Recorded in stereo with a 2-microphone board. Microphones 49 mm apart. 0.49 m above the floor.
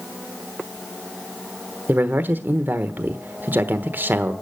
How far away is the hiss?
No hiss in this recording.